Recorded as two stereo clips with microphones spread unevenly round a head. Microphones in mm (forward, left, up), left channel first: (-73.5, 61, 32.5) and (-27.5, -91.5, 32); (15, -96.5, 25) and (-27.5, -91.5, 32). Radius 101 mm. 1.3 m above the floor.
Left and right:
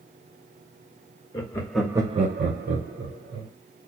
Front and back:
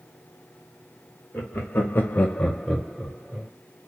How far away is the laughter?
About 1.0 m.